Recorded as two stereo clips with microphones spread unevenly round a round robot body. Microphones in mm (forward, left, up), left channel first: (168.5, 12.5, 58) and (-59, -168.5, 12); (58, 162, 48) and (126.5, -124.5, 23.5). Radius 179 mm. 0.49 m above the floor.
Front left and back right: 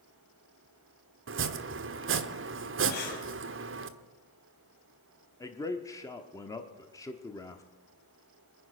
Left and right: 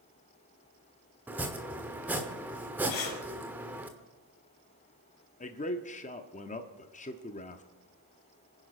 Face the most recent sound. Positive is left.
turn(degrees=125)